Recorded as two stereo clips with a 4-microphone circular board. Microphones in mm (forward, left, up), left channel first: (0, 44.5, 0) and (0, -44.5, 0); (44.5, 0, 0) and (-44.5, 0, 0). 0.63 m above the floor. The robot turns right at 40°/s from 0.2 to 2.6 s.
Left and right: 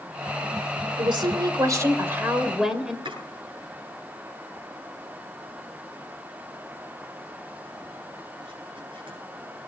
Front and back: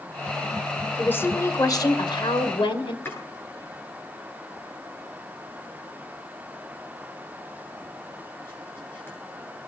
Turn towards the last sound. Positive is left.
turn(degrees=-65)